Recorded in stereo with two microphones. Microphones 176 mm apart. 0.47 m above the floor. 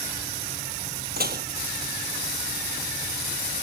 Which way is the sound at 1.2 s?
65° right (ahead or behind).